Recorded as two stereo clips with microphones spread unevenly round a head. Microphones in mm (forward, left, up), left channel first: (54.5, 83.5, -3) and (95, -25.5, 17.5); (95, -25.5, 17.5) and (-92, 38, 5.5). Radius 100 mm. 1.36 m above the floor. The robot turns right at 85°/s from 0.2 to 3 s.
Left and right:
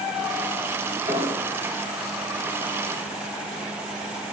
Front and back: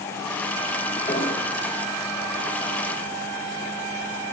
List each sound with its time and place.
1.1 s an explosion: 80° right, 1.3 m; by 1.5 s 40° right, 1.3 m